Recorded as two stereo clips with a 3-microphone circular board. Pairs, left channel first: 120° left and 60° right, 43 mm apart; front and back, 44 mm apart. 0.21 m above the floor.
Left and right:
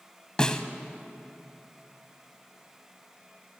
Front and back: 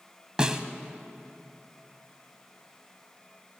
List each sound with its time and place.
0.4 s a snare drum: 150° left, 1.4 m